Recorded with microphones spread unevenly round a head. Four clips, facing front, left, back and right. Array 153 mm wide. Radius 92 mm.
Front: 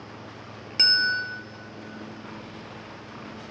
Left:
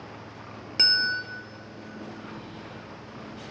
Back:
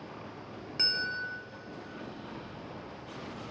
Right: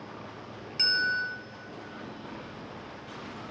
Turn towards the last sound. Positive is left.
turn(degrees=50)